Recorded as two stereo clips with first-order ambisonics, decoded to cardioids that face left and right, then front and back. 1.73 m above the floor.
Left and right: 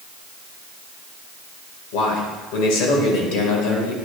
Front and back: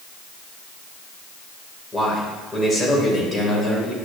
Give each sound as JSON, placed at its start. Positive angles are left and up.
{"t": 1.9, "sound": "a man speaking", "azimuth_deg": 80, "distance_m": 2.5}